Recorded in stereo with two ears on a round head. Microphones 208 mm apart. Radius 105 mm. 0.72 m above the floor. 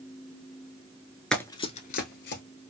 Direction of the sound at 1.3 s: 5° left (ahead or behind).